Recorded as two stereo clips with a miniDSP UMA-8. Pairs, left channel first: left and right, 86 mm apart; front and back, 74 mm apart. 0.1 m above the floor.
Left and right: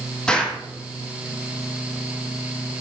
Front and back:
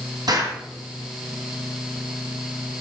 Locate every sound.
0.3 s an explosion: 170° left, 5 m